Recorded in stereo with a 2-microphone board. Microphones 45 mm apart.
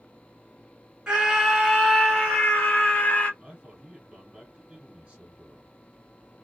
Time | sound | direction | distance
1.1 | a scream | 20° right (ahead or behind) | 1.2 m
3.4 | a man speaking | 25° right (ahead or behind) | 1.4 m